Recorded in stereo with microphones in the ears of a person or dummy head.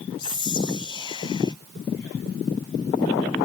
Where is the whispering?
25° left (ahead or behind), 0.8 m.